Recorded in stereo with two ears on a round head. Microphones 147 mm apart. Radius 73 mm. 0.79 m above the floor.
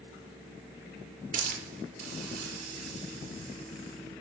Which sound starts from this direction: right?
A hiss, at 1.3 s.